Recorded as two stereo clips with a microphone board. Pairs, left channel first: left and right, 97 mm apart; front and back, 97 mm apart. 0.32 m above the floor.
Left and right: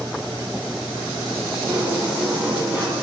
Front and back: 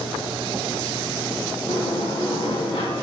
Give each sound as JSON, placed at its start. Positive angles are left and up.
{"t": 1.7, "sound": "a sliding door", "azimuth_deg": -15, "distance_m": 3.5}